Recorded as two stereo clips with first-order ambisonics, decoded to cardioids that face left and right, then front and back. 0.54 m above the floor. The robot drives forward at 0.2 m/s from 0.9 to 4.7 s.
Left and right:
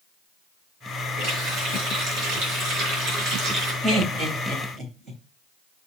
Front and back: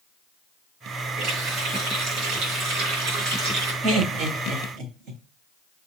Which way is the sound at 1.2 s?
130° right.